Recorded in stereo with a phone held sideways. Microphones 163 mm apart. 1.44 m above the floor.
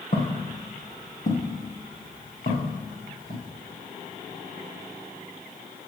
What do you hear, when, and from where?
0.1 s footsteps: 50° left (ahead or behind), 2.5 m; by 3.4 s 55° left (ahead or behind), 4.5 m